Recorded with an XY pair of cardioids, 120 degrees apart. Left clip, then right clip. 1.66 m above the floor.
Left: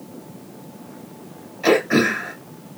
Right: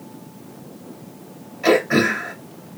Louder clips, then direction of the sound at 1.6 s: Even; 5° left.